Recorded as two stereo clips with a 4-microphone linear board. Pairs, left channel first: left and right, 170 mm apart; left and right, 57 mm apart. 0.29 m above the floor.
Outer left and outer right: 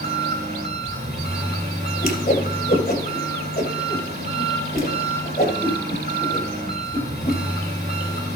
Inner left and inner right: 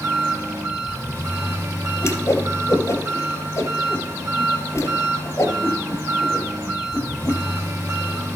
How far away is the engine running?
About 5 m.